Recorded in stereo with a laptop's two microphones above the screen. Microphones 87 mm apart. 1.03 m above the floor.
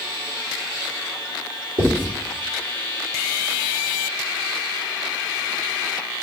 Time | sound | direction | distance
1.8 | writing | 70° right (ahead or behind) | 3.5 m